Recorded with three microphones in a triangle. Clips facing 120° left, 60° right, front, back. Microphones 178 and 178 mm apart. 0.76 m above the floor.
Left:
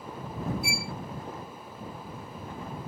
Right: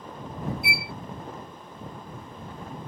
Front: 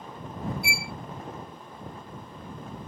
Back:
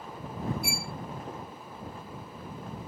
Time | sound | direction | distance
0.6 | a violin | 155° left | ?